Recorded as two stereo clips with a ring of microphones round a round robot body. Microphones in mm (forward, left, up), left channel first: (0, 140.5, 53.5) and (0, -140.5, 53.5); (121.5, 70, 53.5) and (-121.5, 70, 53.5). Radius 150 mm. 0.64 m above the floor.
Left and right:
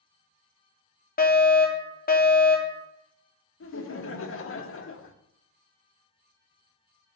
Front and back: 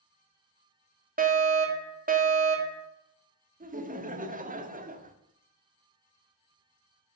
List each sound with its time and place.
1.2 s a fire alarm: 140° left, 2.5 m
3.6 s laughter: 125° left, 1.6 m